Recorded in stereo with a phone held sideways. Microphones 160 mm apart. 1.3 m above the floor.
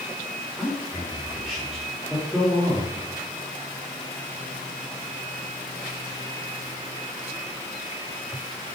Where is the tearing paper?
I don't hear tearing paper.